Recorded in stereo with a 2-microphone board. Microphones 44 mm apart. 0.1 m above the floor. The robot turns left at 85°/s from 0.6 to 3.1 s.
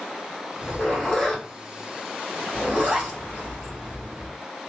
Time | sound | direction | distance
0.6 | a zipper | 25° left (ahead or behind) | 1.9 m